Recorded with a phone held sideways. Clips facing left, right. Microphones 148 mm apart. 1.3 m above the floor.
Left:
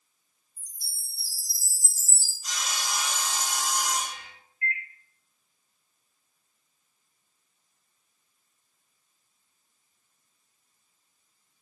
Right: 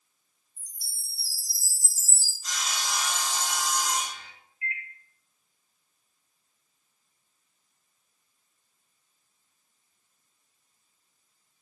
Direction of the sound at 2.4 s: 10° left (ahead or behind).